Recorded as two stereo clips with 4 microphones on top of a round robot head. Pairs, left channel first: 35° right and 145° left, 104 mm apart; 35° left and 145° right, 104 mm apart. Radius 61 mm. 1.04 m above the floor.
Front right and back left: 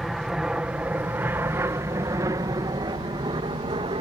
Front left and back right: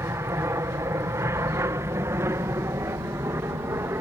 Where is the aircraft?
130° right; by 4.0 s 160° left.